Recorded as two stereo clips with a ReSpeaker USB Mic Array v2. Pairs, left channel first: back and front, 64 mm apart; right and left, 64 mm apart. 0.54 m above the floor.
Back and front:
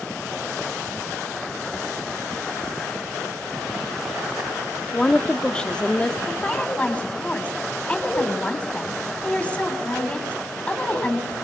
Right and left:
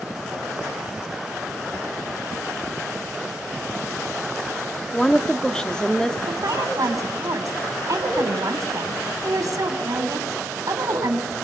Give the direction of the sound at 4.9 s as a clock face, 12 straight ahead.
5 o'clock.